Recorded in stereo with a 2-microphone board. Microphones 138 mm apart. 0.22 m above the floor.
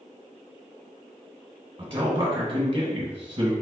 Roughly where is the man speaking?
Right.